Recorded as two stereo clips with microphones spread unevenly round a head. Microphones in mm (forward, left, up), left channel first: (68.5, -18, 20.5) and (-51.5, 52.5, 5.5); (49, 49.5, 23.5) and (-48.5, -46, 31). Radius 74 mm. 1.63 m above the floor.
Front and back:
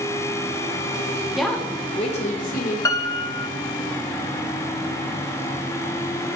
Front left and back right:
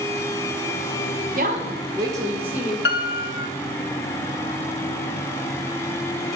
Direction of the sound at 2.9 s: 35° left.